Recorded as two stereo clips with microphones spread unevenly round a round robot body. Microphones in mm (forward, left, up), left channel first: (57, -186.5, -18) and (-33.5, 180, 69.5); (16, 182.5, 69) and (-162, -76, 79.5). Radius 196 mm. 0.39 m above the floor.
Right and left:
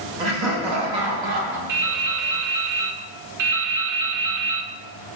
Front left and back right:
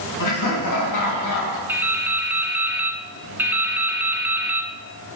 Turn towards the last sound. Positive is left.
turn(degrees=150)